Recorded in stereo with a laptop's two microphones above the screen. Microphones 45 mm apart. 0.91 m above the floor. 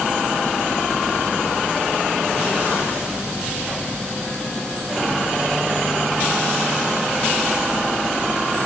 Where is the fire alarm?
No fire alarm in this recording.